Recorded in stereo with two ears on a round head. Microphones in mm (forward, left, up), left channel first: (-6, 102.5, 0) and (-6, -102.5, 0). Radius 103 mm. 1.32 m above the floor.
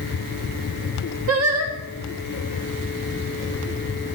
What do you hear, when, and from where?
1.3 s singing: 65° right (ahead or behind), 1.9 m